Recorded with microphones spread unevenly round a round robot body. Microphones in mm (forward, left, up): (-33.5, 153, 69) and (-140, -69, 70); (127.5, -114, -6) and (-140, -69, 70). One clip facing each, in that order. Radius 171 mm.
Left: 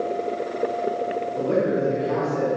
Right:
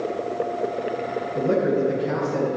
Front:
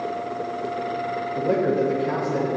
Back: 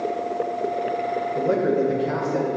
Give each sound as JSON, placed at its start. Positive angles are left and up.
{"t": 1.4, "sound": "a man speaking", "azimuth_deg": -105, "distance_m": 2.5}